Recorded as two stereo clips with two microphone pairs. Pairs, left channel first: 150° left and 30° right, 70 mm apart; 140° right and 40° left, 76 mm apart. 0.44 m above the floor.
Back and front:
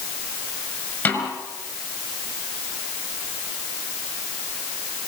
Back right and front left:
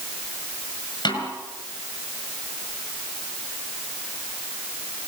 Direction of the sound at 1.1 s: 150° right.